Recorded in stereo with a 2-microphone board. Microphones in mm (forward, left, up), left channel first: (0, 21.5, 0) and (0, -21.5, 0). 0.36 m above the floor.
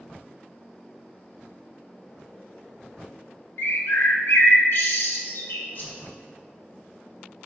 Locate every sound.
3.6 s a bird: 65° left (ahead or behind), 0.7 m
5.8 s a whoosh: 55° left (ahead or behind), 1.2 m